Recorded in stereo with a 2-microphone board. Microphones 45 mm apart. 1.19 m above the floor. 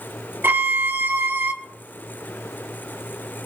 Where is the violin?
55° right (ahead or behind), 0.9 m.